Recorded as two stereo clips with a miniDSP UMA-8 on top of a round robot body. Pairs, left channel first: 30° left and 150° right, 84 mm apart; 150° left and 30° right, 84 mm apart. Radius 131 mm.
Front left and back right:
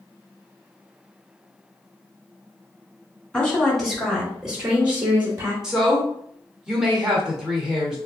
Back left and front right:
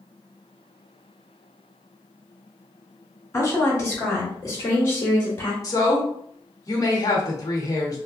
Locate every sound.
3.3 s a woman speaking: 105° left, 1.9 m; by 5.5 s straight behind, 1.5 m
5.6 s a woman speaking: 130° left, 1.2 m